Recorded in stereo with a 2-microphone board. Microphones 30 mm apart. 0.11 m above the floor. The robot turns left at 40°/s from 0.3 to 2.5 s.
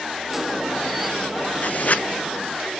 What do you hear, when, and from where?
1.6 s writing: 45° left (ahead or behind), 0.7 m; by 2.0 s 55° left (ahead or behind), 0.7 m